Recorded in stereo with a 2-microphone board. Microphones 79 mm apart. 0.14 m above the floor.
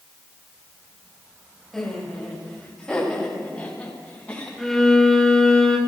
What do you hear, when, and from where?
1.7 s laughter: 5° left (ahead or behind), 5.5 m; by 4.5 s 20° left (ahead or behind), 8 m
4.6 s a violin: 5° left (ahead or behind), 2 m